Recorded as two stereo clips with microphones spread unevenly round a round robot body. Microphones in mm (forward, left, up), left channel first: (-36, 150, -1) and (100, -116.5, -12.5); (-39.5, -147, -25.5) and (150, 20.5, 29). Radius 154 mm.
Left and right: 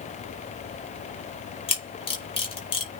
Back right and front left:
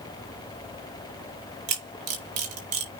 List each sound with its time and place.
1.7 s a camera shutter: 45° left, 4 m